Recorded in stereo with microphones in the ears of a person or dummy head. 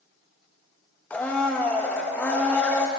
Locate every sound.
1.1 s a blender: 15° left (ahead or behind), 0.7 m